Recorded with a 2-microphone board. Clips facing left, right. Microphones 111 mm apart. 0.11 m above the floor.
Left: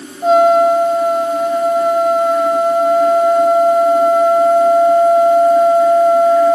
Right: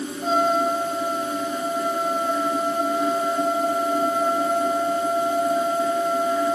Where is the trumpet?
75° left (ahead or behind).